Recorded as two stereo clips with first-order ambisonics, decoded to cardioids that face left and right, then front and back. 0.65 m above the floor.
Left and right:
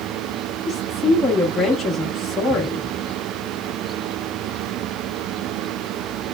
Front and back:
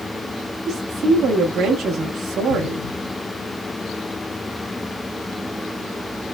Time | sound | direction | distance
0.7 | a woman speaking | 160° left | 0.6 m